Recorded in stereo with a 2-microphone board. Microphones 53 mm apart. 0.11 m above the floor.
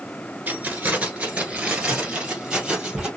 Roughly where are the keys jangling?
Right.